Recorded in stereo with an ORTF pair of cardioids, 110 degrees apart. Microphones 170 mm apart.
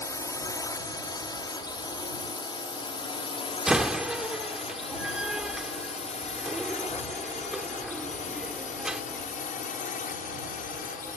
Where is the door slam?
5° right.